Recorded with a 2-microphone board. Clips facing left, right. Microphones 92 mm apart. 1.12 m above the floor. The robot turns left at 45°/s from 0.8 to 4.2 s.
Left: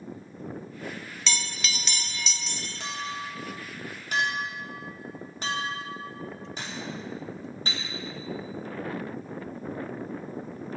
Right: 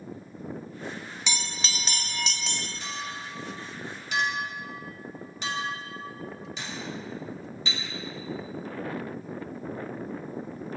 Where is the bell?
15° right, 0.5 m; by 2.7 s 75° right, 0.5 m.